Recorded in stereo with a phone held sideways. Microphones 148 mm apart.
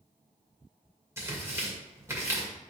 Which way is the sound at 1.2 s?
20° right (ahead or behind).